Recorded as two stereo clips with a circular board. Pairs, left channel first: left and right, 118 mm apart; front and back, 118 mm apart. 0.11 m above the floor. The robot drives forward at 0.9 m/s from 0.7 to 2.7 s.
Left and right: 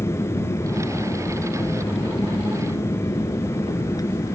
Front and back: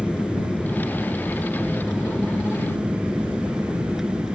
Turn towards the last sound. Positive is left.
turn(degrees=95)